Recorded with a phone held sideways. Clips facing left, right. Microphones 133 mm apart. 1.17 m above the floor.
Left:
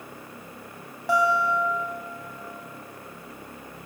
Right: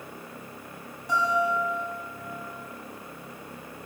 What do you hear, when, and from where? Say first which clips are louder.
1.1 s a guitar: left 3 dB; 80° left, 5.5 m